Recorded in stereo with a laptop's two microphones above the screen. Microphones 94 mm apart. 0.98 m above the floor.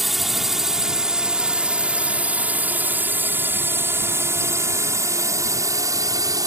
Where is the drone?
Centre (ahead or behind); by 6.5 s 40° right (ahead or behind).